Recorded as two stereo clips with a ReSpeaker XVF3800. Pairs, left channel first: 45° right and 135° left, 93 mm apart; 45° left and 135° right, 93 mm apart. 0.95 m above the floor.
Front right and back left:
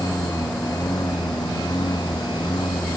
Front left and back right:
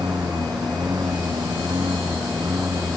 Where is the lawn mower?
90° right; by 3.0 s 85° right.